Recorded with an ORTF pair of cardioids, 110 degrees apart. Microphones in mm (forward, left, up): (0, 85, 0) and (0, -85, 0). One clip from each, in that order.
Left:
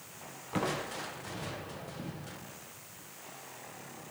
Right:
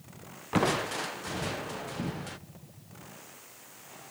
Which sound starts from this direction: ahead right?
Crushing, at 0.5 s.